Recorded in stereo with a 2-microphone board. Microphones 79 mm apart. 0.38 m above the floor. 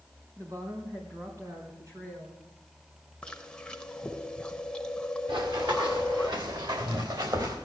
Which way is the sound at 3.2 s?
10° left (ahead or behind).